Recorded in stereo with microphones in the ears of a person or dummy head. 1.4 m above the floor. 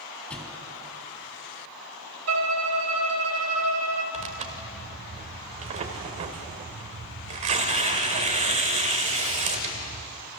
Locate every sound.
0.3 s a thud: 5° left (ahead or behind), 3 m
2.3 s a violin: 75° right (ahead or behind), 2 m
4.1 s tearing paper: 35° right (ahead or behind), 1.8 m